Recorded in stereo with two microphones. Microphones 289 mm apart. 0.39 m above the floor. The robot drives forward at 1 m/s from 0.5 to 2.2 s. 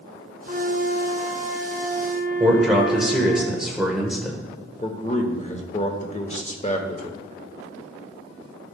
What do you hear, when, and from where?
0.5 s a flute: 30° right (ahead or behind), 0.9 m; by 3.4 s 15° right (ahead or behind), 1.6 m
2.4 s a man speaking: centre (ahead or behind), 1.1 m
4.8 s a man speaking: 25° left (ahead or behind), 0.9 m